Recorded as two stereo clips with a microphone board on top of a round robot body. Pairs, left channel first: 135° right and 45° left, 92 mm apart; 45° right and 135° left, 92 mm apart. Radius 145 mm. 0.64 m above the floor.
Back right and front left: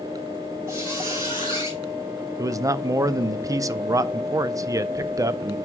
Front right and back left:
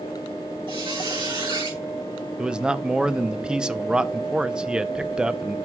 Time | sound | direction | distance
0.7 | a squeak | 105° left | 5 m
2.4 | a man speaking | 60° left | 0.6 m